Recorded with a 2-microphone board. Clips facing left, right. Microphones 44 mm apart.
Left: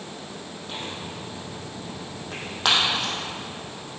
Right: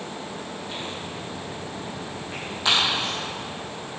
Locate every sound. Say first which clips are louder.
0.7 s tearing paper: left 2 dB; 65° left (ahead or behind), 4.5 m